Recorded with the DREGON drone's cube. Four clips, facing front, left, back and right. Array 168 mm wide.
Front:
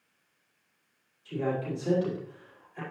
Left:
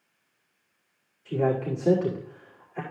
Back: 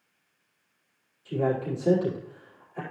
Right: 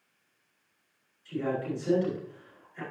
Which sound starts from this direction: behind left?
A man speaking, at 1.2 s.